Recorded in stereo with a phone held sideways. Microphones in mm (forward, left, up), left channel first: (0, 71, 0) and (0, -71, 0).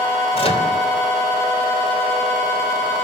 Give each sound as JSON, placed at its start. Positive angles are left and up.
{"t": 0.3, "sound": "a microwave", "side_deg": 45, "distance_m": 3.0}